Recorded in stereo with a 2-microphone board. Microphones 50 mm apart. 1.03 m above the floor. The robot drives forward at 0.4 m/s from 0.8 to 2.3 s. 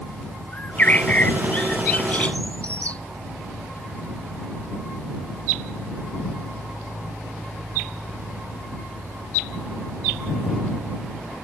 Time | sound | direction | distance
0.5 | a bird | 30° left (ahead or behind) | ?